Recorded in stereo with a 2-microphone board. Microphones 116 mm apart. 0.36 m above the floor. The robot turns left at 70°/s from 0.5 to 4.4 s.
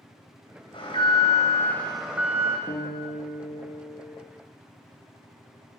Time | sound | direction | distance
0.7 | an alarm | 90° left | 1.8 m
2.7 | a guitar | 120° left | 3 m